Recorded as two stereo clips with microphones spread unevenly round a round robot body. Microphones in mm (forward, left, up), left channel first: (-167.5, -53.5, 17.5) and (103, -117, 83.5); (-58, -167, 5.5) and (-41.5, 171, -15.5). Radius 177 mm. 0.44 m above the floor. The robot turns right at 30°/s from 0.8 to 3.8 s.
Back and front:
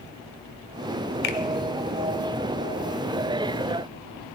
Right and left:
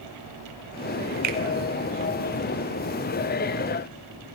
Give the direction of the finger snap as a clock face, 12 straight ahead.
7 o'clock.